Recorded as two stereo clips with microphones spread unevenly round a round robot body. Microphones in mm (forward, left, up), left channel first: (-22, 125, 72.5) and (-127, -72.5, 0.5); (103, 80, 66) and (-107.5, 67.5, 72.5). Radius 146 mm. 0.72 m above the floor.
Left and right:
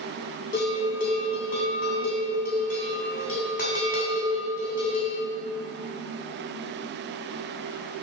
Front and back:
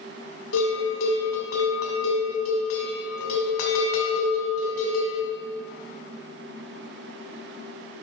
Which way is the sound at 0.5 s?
Straight ahead.